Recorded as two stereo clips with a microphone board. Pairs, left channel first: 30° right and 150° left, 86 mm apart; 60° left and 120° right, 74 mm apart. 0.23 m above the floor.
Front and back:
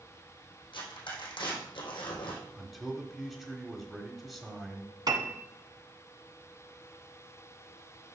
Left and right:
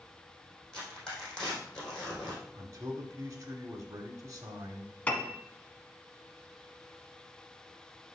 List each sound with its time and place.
0.7 s tearing paper: 20° right, 4 m
2.5 s a man speaking: 125° right, 1.3 m
5.1 s a piano: 130° left, 1.2 m